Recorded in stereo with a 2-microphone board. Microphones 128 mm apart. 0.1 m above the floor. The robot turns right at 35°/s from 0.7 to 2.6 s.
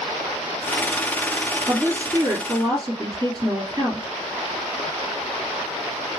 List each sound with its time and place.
1.7 s a woman speaking: 155° right, 2.0 m; by 4.1 s 125° right, 2.0 m